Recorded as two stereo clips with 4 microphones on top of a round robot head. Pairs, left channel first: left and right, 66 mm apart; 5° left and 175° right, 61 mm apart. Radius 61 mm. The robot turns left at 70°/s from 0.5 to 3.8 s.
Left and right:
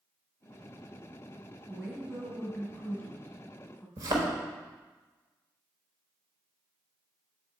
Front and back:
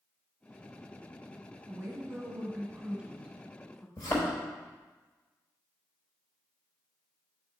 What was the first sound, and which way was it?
A woman speaking, 150° right.